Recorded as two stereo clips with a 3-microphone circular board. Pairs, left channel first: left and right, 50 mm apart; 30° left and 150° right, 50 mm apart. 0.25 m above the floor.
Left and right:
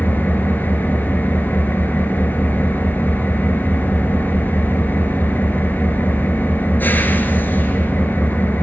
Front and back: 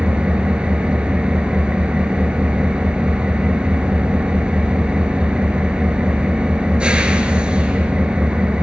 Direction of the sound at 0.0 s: 140° left.